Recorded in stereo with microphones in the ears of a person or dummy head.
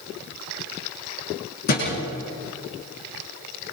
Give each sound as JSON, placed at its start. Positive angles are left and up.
{"t": 1.7, "sound": "a thud", "side_deg": 50, "distance_m": 8.5}